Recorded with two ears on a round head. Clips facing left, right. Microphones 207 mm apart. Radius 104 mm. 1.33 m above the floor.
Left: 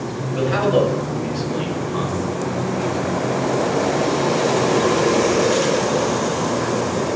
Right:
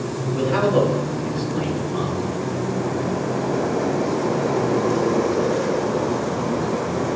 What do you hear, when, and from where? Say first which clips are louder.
0.3 s a man speaking: left 1 dB; 80° left, 8.5 m; by 2.3 s 85° left, 6.5 m